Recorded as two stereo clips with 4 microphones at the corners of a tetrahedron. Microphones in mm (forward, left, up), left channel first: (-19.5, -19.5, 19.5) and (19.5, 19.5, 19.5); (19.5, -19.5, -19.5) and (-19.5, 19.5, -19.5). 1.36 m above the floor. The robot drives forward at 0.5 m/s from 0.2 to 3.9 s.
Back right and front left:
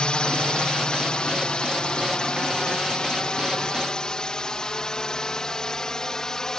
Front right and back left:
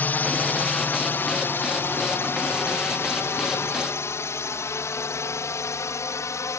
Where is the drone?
75° right; by 6.6 s 55° right.